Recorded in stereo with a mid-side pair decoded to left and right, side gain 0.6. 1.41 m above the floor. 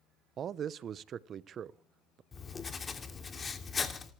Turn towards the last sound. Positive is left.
turn(degrees=25)